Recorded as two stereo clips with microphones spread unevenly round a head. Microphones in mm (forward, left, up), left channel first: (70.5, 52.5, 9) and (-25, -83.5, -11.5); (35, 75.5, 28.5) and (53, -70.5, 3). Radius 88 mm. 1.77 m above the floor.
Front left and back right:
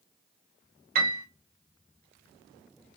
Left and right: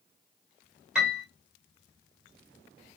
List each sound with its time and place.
0.9 s a piano: 170° right, 1.4 m